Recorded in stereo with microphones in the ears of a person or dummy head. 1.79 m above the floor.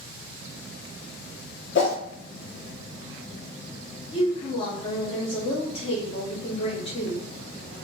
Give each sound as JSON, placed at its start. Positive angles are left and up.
{"t": 1.8, "sound": "a whoosh", "side_deg": 70, "distance_m": 1.0}
{"t": 4.1, "sound": "a woman speaking", "side_deg": 30, "distance_m": 1.1}